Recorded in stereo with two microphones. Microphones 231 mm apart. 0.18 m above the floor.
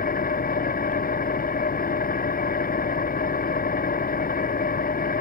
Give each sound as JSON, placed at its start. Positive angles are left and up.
{"t": 0.0, "sound": "an engine running", "side_deg": 35}